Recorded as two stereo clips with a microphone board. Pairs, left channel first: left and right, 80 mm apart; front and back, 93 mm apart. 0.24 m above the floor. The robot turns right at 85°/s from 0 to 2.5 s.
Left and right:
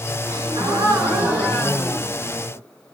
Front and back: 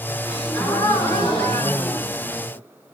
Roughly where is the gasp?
Behind right.